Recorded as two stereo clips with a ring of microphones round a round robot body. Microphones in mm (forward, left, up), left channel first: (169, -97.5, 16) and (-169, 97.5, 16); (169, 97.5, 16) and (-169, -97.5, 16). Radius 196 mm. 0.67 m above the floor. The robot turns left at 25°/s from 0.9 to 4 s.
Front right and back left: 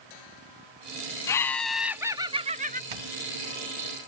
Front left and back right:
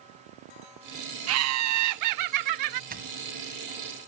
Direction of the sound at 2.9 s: 140° left.